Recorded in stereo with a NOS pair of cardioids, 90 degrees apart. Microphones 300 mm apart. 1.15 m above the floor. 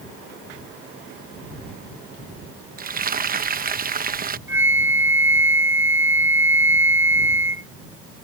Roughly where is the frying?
Ahead right.